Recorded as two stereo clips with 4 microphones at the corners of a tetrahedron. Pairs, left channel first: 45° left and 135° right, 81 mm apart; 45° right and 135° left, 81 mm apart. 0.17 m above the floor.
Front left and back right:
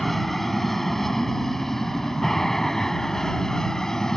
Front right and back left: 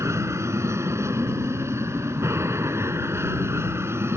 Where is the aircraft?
130° left; by 4.2 s 125° left.